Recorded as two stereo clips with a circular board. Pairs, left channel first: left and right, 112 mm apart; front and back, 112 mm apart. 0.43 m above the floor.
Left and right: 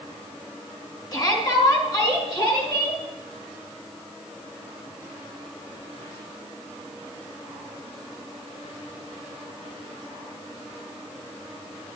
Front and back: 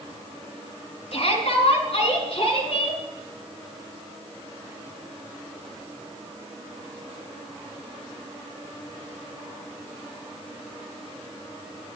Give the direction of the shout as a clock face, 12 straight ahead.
11 o'clock.